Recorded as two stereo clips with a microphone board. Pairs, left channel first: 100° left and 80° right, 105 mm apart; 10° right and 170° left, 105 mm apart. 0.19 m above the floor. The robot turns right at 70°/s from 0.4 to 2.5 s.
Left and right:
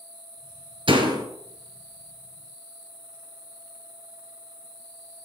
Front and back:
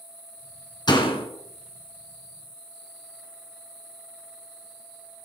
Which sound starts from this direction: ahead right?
A door slam, at 0.9 s.